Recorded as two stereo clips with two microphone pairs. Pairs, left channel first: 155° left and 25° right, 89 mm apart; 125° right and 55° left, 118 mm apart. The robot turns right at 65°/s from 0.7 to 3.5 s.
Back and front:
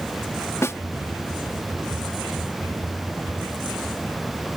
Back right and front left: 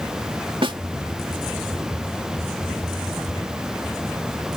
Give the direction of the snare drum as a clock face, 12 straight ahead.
9 o'clock.